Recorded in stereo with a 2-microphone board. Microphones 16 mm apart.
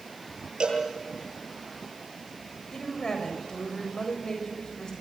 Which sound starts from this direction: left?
A woman speaking, at 2.7 s.